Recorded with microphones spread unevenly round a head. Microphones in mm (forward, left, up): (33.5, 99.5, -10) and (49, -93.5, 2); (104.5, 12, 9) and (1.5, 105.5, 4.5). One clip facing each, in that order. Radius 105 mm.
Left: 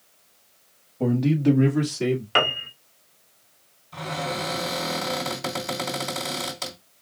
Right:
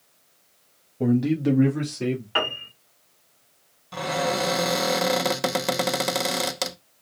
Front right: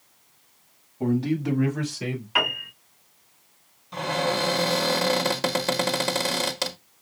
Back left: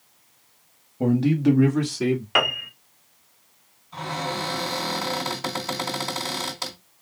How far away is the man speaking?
About 1.4 m.